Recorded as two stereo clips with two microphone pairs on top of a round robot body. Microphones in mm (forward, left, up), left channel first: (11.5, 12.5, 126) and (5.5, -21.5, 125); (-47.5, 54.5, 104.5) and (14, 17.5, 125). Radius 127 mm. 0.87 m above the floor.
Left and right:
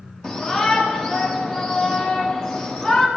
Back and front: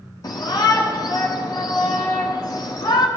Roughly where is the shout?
Behind.